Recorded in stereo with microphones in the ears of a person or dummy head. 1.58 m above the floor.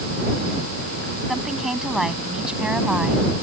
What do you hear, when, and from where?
1.3 s a woman speaking: centre (ahead or behind); by 3.3 s 5° right (ahead or behind)